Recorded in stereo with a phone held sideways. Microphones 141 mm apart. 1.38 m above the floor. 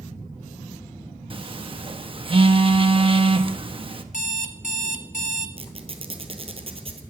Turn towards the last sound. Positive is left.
turn(degrees=-40)  # may be behind; listen again after turning